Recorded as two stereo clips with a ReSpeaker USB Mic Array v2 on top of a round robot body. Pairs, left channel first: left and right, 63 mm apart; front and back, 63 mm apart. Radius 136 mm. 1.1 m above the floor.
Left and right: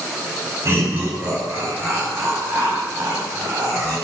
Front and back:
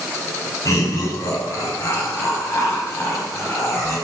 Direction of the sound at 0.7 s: 40° right.